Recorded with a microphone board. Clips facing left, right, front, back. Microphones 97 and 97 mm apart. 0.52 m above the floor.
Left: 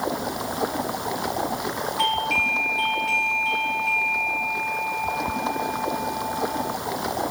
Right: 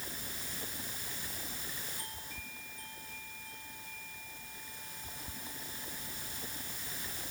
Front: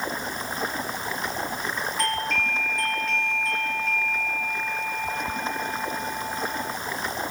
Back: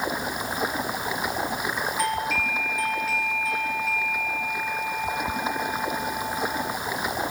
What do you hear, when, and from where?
0.0 s running water: 100° left
2.0 s a doorbell: 95° left